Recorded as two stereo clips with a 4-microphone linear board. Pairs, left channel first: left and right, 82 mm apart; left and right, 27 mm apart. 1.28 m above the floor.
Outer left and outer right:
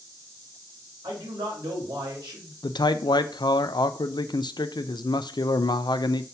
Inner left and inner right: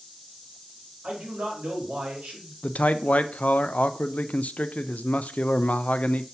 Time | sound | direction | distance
1.0 | a man speaking | 70° right (ahead or behind) | 3.5 m
2.6 | a man speaking | 70° left (ahead or behind) | 0.5 m